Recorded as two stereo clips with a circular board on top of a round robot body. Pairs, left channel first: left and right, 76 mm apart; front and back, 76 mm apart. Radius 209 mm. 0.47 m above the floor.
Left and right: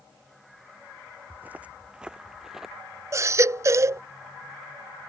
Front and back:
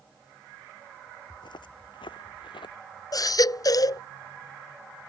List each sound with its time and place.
1.3 s footsteps: 25° right; by 2.8 s 5° right
3.1 s a baby crying: 40° right